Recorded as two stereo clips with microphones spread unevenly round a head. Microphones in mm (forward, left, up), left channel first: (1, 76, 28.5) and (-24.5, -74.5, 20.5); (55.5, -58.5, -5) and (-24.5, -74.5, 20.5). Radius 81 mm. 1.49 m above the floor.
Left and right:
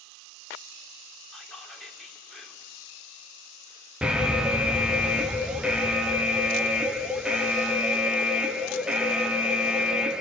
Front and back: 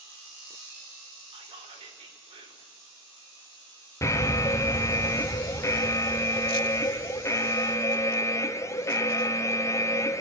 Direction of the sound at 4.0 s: 15° right.